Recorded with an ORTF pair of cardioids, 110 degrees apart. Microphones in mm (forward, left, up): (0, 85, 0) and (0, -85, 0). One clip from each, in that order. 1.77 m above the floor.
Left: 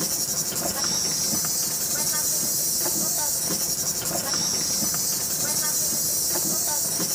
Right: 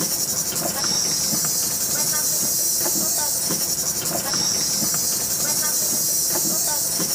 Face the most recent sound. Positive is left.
turn(degrees=-15)